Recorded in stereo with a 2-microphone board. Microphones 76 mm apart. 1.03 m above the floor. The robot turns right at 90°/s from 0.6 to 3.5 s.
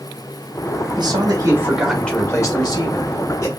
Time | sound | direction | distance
1.0 | a man speaking | 85° right | 1.7 m